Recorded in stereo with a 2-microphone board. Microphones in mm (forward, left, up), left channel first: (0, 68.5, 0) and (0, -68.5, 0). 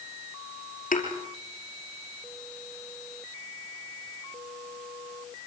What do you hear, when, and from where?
0.9 s a thud: 75° left (ahead or behind), 4.5 m